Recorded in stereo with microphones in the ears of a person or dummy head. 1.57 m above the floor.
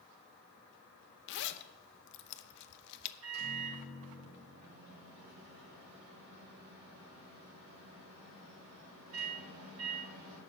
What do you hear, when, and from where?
1.3 s a zipper: 65° left (ahead or behind), 0.8 m
3.2 s a microwave: 80° right, 3.5 m